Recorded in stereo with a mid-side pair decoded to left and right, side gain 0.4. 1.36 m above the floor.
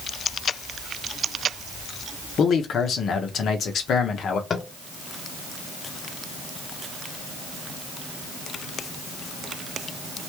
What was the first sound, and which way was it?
A man speaking, 70° left.